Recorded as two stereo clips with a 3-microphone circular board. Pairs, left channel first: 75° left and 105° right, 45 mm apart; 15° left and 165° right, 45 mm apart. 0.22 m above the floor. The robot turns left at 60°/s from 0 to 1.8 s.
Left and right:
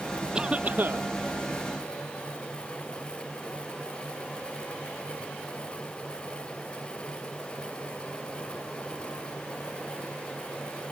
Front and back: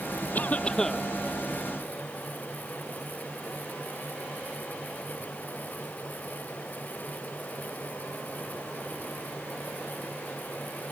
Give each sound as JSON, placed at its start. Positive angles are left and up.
{"t": 0.3, "sound": "a cough", "azimuth_deg": -35}